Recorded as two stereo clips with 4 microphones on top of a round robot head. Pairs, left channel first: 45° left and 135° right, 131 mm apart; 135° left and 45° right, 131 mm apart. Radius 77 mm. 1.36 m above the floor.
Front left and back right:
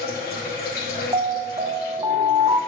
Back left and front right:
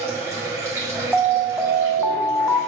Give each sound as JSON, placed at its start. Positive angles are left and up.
{"t": 0.0, "sound": "running water", "azimuth_deg": 25, "distance_m": 2.0}
{"t": 1.1, "sound": "an alarm", "azimuth_deg": -130, "distance_m": 0.5}